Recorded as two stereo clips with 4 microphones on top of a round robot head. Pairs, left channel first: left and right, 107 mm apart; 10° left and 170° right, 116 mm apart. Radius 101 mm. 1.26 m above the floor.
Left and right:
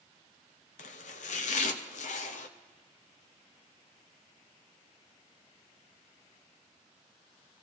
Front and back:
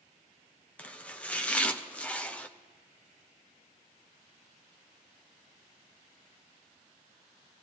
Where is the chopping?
85° left, 0.6 m.